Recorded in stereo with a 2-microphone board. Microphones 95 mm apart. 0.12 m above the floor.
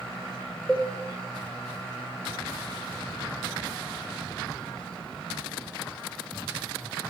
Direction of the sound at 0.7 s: 5° left (ahead or behind).